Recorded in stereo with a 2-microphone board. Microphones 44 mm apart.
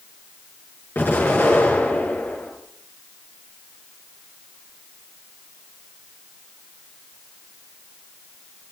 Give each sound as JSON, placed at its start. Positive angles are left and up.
{"t": 0.9, "sound": "an explosion", "side_deg": 50, "distance_m": 6.5}